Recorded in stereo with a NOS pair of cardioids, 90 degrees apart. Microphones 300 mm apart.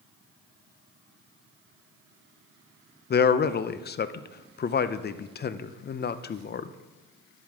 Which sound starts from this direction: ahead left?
A man speaking, at 3.1 s.